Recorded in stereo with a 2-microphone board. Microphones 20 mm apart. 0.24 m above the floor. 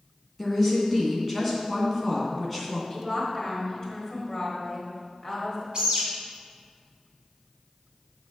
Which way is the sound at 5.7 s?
40° right (ahead or behind).